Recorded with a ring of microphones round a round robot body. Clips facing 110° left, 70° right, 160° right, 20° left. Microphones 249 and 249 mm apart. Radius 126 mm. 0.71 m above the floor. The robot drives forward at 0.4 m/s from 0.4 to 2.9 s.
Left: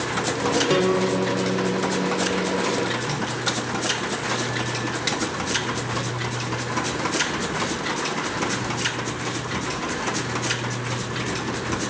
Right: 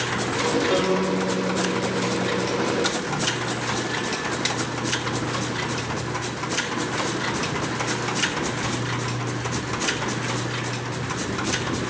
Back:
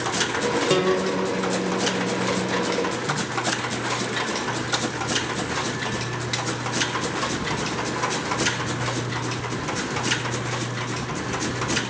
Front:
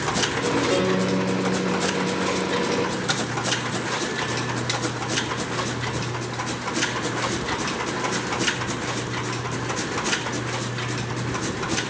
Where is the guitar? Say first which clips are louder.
Left 2 dB, back 3 dB; 160° left, 1.2 m; by 3.2 s 170° left, 2 m.